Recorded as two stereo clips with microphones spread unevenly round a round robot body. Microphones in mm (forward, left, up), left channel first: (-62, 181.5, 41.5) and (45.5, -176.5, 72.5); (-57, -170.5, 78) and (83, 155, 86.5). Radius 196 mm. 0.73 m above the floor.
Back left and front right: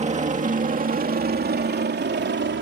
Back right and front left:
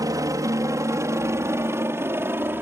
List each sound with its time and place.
0.0 s a helicopter: 10° right; by 2.6 s 15° right